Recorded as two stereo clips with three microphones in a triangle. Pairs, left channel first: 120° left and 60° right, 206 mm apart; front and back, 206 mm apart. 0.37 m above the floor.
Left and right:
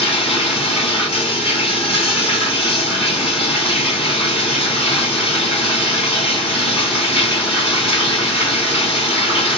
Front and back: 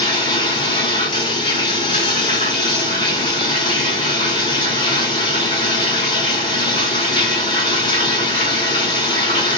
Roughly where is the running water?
Ahead left.